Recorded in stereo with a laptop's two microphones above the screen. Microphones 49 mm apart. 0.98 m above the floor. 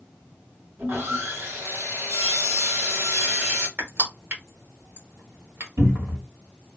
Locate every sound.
0.8 s sawing: 50° right (ahead or behind), 1.1 m
3.8 s crushing: 50° right (ahead or behind), 1.2 m
5.8 s a cupboard door: 80° right, 1.9 m